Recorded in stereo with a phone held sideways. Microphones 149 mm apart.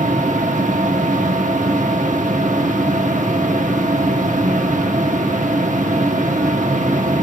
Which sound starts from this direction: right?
A machine running, at 0.0 s.